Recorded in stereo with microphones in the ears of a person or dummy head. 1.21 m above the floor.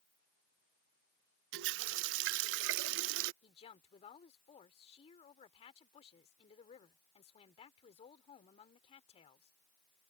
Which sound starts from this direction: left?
A woman speaking, at 3.4 s.